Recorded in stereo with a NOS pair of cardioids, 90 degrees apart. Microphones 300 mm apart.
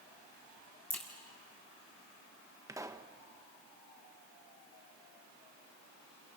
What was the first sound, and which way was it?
A crack, 5° left.